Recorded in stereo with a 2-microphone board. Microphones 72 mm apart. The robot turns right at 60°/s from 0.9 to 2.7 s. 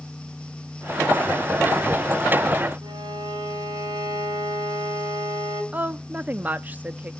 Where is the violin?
60° right (ahead or behind), 6 m.